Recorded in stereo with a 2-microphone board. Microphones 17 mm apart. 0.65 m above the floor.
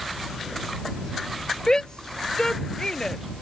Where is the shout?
50° left (ahead or behind); by 3.2 s 40° left (ahead or behind).